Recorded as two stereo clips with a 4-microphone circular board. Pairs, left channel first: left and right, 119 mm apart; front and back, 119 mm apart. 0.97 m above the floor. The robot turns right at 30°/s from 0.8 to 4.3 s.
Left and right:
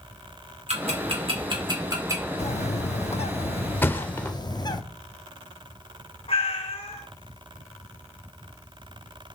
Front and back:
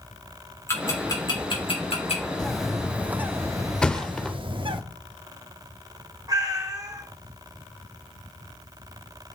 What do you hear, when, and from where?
0.7 s ticking: 65° right, 2.5 m; by 2.2 s 25° right, 2.5 m
2.4 s a bird: 85° left, 0.7 m; by 4.8 s 140° left, 0.7 m
3.8 s a thud: 65° left, 0.6 m; by 4.3 s 80° left, 0.6 m
6.3 s a cat meowing: 120° left, 1.5 m